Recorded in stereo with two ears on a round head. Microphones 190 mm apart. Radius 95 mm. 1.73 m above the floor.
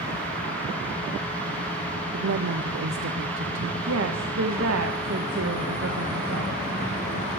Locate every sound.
2.1 s a woman speaking: 60° right (ahead or behind), 0.7 m
3.9 s a woman speaking: 70° right (ahead or behind), 1.6 m